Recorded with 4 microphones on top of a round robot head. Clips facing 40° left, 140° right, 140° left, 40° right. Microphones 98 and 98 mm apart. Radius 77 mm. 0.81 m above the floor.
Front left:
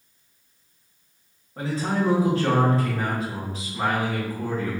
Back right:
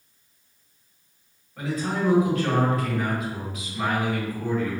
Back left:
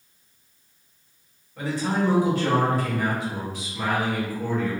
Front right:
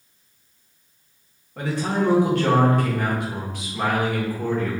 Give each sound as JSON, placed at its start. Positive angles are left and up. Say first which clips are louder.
{"t": 1.6, "sound": "a man speaking", "louder": "front left 2 dB, front right 1 dB", "azimuth_deg": -15, "distance_m": 1.5}